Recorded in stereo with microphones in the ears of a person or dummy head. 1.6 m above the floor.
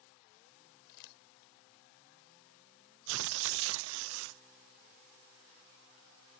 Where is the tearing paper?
75° right (ahead or behind).